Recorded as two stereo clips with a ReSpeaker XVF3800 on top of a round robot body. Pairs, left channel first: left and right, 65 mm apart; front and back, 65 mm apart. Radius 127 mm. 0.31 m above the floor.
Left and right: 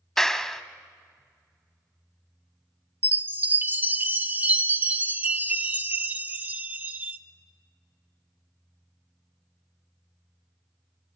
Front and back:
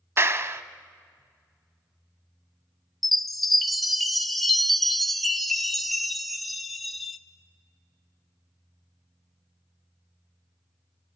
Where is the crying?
No crying in this recording.